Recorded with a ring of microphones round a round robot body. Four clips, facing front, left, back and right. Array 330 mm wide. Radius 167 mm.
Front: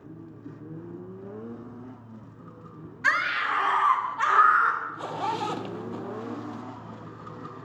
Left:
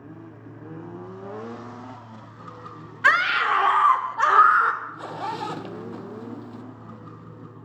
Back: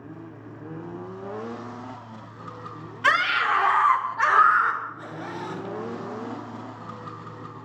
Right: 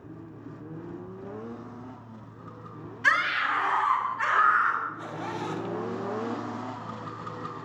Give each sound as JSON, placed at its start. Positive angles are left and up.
{"t": 3.0, "sound": "a scream", "azimuth_deg": 130, "distance_m": 2.5}
{"t": 4.8, "sound": "a zipper", "azimuth_deg": 35, "distance_m": 1.0}